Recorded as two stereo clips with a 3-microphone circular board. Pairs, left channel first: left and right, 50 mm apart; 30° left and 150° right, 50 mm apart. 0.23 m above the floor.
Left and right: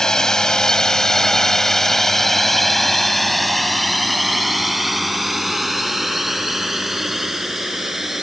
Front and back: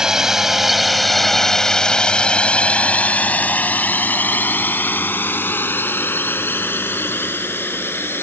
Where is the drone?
150° left; by 8.2 s 5° right.